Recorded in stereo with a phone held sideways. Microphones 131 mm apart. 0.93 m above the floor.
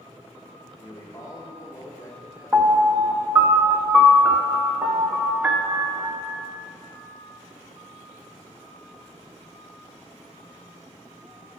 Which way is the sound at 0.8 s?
25° left (ahead or behind).